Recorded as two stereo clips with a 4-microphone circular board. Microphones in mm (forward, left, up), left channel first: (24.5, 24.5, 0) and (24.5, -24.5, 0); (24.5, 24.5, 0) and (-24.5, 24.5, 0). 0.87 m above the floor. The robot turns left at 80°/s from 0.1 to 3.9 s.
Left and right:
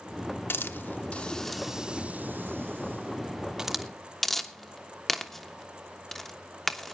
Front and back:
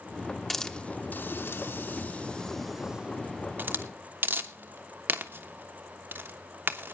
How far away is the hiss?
About 1.0 m.